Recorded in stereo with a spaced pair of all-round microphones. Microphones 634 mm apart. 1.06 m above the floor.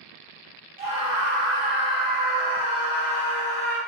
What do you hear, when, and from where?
0.8 s a scream: 60° right (ahead or behind), 1.5 m; by 3.8 s 25° left (ahead or behind), 1.1 m